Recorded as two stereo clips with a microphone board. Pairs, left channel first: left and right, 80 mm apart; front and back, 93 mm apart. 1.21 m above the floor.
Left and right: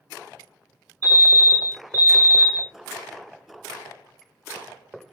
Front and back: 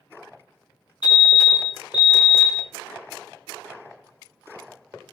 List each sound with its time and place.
1.0 s a fire alarm: 40° right, 2 m